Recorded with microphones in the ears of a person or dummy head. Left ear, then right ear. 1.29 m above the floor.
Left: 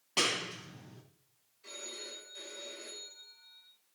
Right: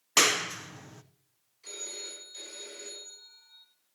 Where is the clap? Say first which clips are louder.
Right 7 dB; 50° right (ahead or behind), 0.6 m.